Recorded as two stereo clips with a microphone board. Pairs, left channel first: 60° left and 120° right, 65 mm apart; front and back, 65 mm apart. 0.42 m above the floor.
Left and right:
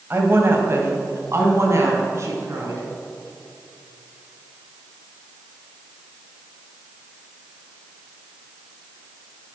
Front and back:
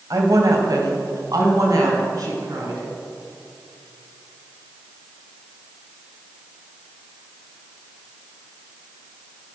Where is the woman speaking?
170° right, 2.5 m; by 2.8 s 160° right, 5 m.